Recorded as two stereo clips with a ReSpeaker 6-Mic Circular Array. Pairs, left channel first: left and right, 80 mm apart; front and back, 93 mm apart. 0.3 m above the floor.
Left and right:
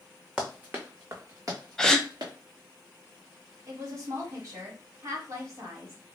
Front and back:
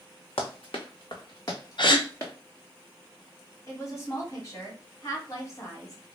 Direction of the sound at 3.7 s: 45° right.